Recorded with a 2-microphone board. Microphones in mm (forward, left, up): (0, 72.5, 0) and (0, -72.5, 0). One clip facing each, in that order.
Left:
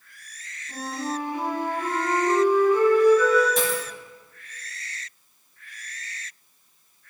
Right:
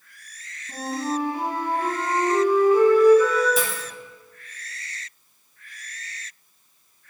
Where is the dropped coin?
5° right (ahead or behind), 1.5 m.